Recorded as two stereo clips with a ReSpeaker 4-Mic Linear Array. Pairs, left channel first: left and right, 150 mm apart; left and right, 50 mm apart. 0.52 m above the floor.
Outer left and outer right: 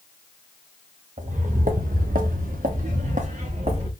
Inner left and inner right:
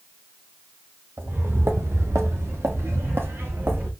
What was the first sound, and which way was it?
Footsteps, 55° right (ahead or behind).